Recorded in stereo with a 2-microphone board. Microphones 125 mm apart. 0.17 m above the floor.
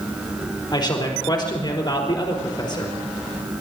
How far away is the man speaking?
About 4 m.